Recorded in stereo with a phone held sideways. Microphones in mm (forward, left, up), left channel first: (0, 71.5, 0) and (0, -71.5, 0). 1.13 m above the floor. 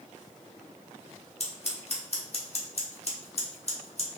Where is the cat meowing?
No cat meowing in this recording.